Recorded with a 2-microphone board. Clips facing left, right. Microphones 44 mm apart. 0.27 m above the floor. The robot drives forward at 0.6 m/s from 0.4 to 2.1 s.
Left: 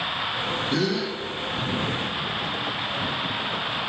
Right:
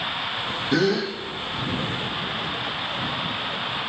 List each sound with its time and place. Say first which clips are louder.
0.7 s a gasp: right 6 dB; 75° right (ahead or behind), 3.5 m; by 1.1 s 80° right, 3.5 m